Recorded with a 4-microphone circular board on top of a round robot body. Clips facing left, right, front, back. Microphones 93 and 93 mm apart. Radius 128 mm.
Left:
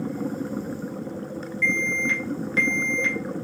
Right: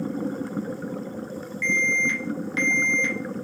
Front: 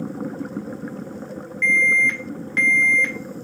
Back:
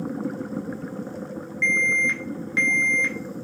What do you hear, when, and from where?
1.6 s an alarm: 95° left, 1.9 m